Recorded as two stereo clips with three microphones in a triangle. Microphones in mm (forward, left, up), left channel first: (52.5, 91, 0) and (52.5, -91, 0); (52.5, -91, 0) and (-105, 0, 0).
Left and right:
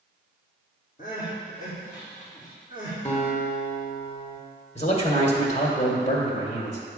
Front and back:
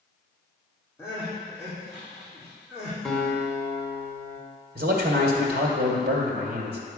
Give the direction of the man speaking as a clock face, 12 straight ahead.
8 o'clock.